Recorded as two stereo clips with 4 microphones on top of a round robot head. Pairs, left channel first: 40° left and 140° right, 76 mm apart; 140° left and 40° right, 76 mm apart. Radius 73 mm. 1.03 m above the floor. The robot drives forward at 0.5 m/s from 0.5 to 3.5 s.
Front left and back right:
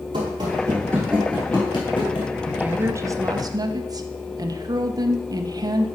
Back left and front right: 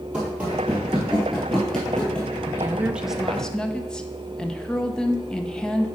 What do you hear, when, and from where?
0.1 s running footsteps: 120° right, 1.6 m; by 2.3 s 60° left, 1.5 m
2.5 s a woman speaking: 70° right, 0.5 m; by 5.9 s 140° right, 0.6 m